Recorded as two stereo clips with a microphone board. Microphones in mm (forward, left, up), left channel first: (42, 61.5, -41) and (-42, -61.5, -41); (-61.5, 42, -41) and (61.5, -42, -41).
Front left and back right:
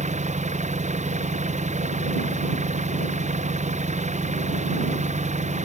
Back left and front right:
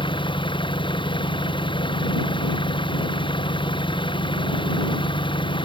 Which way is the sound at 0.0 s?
160° right.